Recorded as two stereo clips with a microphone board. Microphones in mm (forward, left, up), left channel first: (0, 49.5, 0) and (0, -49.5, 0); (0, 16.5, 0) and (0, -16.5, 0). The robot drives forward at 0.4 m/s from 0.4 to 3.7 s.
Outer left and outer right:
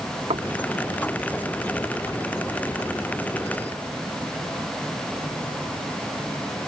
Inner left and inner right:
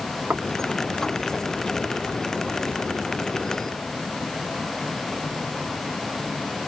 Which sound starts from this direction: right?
Knocking, at 0.3 s.